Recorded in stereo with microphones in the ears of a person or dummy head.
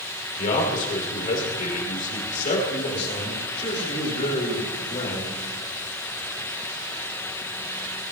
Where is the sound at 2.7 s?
35° left (ahead or behind), 8 m.